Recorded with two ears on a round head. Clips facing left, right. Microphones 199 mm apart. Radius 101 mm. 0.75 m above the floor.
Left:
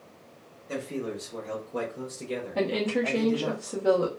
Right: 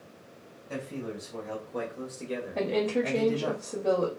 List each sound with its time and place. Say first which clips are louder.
0.7 s a man speaking: left 3 dB; 50° left (ahead or behind), 1.3 m; by 3.5 s 40° right (ahead or behind), 1.1 m
2.5 s a woman speaking: even; 10° left (ahead or behind), 1.0 m